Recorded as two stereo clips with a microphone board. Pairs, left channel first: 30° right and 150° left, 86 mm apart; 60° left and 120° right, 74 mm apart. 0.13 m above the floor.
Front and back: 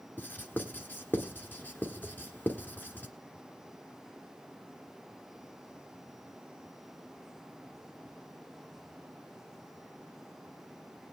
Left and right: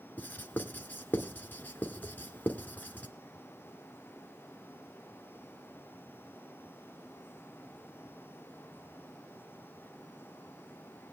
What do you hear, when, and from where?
0.2 s writing: 20° left, 1.3 m